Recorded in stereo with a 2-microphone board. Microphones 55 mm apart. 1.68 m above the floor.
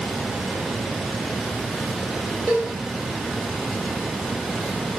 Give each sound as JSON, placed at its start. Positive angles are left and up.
{"t": 2.5, "sound": "a cowbell", "side_deg": 20, "distance_m": 1.5}